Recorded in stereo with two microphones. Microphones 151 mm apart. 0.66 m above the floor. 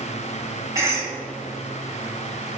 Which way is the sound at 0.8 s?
20° right (ahead or behind).